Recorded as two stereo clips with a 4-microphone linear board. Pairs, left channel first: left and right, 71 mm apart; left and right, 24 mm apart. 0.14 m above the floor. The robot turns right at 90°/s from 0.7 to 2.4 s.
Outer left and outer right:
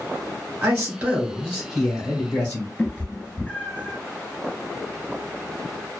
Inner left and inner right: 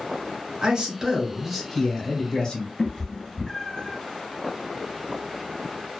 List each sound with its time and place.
0.6 s a man speaking: 20° right (ahead or behind), 1.2 m; by 2.7 s 15° left (ahead or behind), 1.2 m
2.8 s a cat meowing: 15° left (ahead or behind), 1.0 m